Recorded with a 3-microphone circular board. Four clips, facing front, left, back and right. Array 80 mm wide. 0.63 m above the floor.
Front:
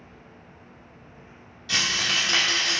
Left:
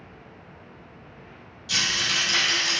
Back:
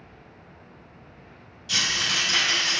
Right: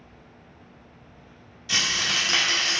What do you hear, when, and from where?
1.7 s a rattle: 40° right, 0.6 m